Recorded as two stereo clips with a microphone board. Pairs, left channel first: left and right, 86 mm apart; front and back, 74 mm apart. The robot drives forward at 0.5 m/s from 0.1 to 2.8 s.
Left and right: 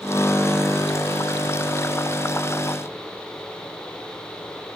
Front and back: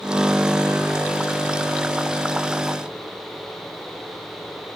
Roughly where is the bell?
No bell in this recording.